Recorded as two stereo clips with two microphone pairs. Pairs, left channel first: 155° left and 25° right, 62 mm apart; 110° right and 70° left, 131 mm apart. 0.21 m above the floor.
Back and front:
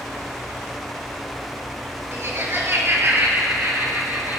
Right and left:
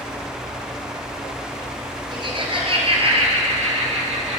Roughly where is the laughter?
Ahead.